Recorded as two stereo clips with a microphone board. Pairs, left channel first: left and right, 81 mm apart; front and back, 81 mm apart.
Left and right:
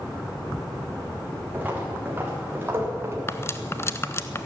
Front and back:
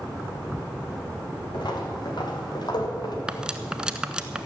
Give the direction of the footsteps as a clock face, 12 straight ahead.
1 o'clock.